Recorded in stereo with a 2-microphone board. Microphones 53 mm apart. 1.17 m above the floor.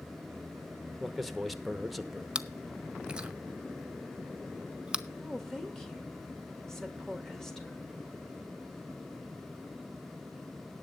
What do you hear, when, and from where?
1.0 s a man speaking: centre (ahead or behind), 1.0 m
2.4 s chewing: 15° right (ahead or behind), 0.6 m
5.1 s a woman speaking: 5° left (ahead or behind), 2 m